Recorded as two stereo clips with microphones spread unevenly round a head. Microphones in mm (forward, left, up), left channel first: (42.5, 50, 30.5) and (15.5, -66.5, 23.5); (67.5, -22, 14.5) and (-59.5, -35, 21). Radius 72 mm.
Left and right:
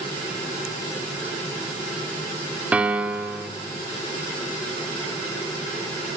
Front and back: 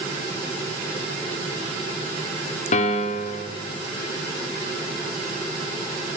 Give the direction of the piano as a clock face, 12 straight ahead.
1 o'clock.